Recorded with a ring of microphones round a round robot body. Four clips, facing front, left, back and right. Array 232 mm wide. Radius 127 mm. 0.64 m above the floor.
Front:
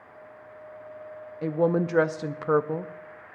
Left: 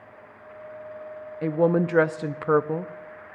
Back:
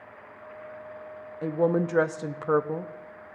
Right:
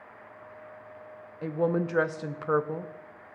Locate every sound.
1.4 s a woman speaking: 80° left, 0.5 m